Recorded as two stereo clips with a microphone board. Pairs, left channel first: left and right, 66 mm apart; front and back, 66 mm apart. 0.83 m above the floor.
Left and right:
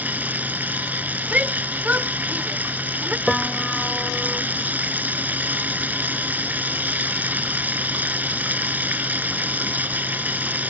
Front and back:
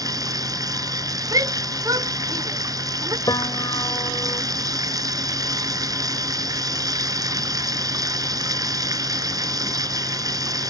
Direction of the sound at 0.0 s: 155° right.